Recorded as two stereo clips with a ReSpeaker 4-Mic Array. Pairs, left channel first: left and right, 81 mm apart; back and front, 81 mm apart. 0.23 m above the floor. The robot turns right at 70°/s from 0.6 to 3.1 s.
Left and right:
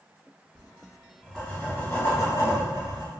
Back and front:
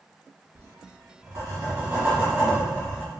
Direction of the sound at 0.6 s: 40° right.